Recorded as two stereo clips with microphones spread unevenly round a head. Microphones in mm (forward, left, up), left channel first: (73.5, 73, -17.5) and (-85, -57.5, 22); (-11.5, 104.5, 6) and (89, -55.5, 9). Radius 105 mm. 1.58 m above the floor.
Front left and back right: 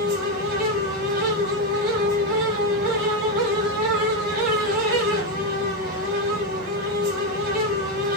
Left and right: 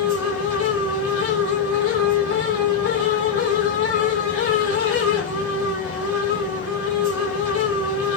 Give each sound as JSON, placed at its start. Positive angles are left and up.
{"t": 0.0, "sound": "a fan", "azimuth_deg": 180, "distance_m": 2.5}